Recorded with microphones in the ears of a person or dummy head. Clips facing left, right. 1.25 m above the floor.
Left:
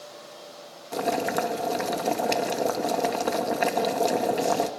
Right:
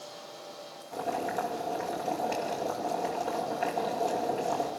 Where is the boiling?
75° left (ahead or behind), 2 m.